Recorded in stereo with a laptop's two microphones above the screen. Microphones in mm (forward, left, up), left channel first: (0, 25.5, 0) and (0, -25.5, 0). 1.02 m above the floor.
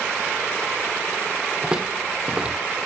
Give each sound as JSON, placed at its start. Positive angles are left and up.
{"t": 1.6, "sound": "footsteps", "side_deg": -20, "distance_m": 2.5}